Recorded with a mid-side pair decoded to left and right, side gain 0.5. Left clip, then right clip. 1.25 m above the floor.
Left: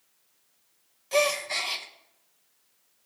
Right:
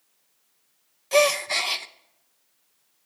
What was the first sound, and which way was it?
A gasp, 35° right.